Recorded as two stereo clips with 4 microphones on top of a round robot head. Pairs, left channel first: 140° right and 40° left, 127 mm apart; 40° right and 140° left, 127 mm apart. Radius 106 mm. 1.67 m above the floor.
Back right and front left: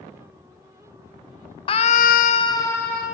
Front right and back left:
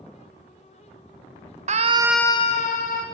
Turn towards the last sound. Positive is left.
turn(degrees=-60)